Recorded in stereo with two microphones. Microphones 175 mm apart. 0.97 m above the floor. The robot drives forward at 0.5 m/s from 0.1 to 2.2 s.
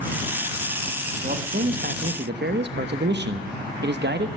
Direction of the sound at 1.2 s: 45° right (ahead or behind).